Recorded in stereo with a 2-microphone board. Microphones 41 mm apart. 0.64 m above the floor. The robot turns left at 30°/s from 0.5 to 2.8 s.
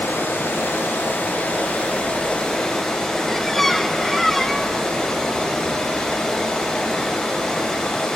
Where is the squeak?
5° left (ahead or behind), 0.6 m.